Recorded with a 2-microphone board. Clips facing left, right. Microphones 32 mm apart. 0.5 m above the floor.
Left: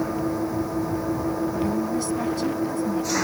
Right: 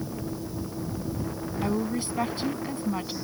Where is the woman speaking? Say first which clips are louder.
Left 4 dB; 30° right (ahead or behind).